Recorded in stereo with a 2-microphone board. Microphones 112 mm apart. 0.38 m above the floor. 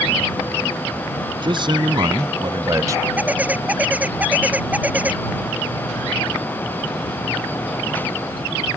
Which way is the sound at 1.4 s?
45° right (ahead or behind).